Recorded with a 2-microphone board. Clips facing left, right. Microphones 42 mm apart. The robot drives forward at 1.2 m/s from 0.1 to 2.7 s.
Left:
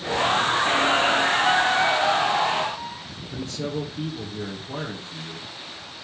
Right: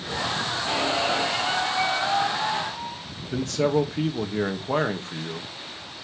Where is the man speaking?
75° right (ahead or behind), 2.5 m.